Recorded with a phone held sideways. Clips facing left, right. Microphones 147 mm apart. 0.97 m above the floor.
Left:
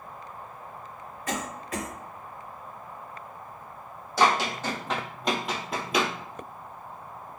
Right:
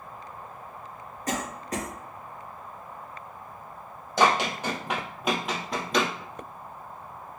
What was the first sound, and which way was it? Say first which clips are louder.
A cough: right 2 dB; 40° right (ahead or behind).